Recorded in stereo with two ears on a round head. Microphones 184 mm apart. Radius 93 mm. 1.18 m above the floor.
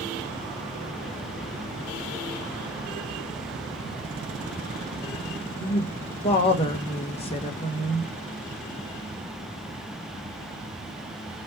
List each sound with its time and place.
5.6 s a woman speaking: 30° left (ahead or behind), 1.2 m